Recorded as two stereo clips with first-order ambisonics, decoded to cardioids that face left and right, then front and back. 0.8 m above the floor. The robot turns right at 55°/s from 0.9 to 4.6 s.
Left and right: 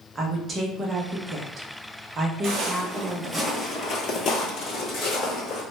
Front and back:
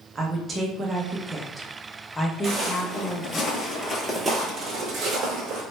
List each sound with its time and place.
0.1 s a woman speaking: 130° right, 0.5 m; by 3.4 s 10° left, 0.5 m
2.4 s footsteps: 115° right, 1.1 m; by 5.6 s 150° left, 1.5 m